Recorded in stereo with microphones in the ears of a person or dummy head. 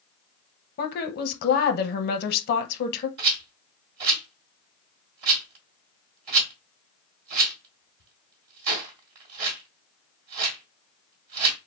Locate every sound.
0.8 s a woman speaking: 55° left (ahead or behind), 0.7 m
3.2 s a rattle: 40° right (ahead or behind), 1.3 m